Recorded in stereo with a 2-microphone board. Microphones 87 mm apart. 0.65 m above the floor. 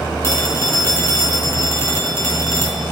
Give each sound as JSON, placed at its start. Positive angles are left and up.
{"t": 0.2, "sound": "a phone ringing", "side_deg": 35, "distance_m": 4.0}